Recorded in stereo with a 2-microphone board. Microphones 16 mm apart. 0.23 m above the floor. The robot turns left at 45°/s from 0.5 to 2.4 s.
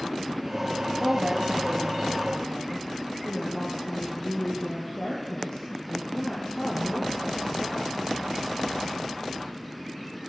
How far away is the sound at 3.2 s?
About 9 m.